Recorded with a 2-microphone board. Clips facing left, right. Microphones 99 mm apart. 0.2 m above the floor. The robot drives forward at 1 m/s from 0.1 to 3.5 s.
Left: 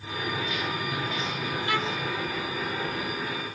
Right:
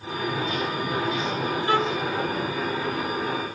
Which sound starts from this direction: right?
A violin, at 1.7 s.